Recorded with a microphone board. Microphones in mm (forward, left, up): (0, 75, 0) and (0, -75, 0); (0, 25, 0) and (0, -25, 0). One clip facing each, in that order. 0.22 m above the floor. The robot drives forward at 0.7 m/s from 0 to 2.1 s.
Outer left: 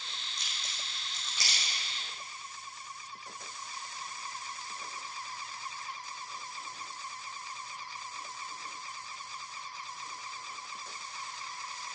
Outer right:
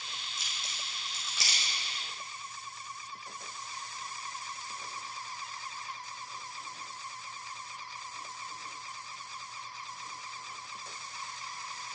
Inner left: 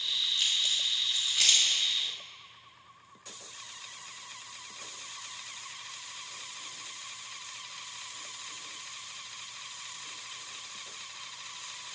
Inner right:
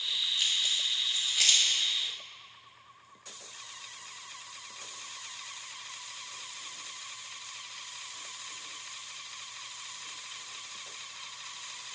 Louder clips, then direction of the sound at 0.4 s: Outer right 1 dB, even; 5° right (ahead or behind).